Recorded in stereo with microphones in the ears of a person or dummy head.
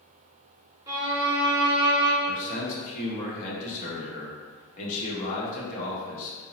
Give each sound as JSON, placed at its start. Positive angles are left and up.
{"t": 0.9, "sound": "a violin", "side_deg": -20, "distance_m": 0.5}
{"t": 2.3, "sound": "a man speaking", "side_deg": 50, "distance_m": 1.1}